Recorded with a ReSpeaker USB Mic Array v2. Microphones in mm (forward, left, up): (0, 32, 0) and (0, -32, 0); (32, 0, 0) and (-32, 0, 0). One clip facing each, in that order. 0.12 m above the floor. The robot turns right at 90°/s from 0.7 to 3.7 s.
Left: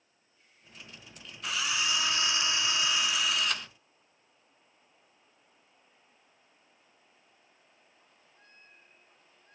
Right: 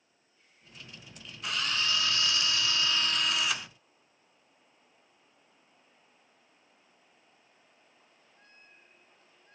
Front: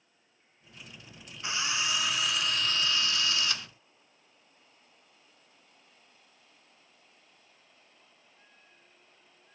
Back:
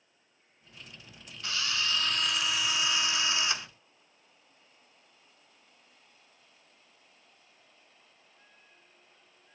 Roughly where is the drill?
Ahead.